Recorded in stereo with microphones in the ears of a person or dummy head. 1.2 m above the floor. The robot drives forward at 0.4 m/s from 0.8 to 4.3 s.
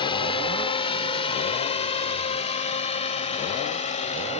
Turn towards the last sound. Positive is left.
turn(degrees=35)  # may be behind; listen again after turning